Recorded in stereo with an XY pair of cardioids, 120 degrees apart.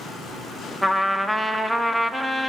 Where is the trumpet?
Straight ahead, 1.2 m.